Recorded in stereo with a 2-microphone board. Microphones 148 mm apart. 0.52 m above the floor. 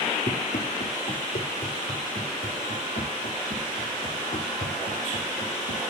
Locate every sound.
0.3 s running footsteps: 60° left (ahead or behind), 3.5 m; by 5.8 s 85° left, 6.5 m